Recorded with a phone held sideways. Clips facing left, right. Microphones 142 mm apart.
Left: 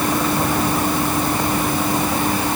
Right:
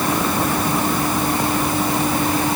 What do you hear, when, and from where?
Only background noise.